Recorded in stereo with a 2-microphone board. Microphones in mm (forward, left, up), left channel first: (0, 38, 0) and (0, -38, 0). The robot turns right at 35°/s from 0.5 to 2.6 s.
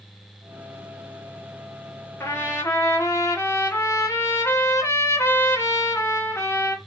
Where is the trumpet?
30° left (ahead or behind), 0.7 m; by 6.8 s 35° left (ahead or behind), 0.7 m.